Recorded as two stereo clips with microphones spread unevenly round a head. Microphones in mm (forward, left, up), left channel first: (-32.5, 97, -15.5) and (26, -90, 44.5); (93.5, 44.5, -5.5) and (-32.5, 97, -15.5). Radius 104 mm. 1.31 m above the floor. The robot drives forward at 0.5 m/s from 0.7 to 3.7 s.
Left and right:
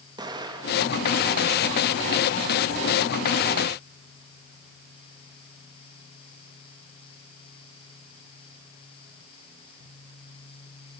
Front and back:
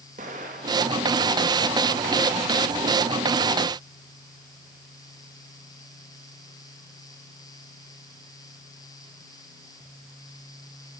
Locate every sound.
0.2 s an explosion: 145° right, 2.5 m